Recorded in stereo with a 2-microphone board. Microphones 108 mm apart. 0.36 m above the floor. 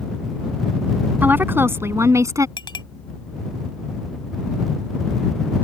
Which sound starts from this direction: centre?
A woman speaking, at 1.2 s.